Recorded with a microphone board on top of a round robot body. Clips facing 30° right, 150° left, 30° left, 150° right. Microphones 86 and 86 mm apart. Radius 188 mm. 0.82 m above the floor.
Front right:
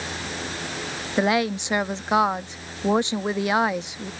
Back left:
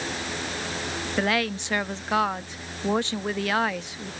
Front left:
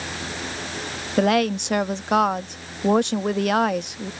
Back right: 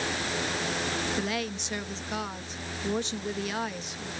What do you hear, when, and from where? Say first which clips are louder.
1.2 s a woman speaking: front right 4 dB, front left 12 dB; 40° left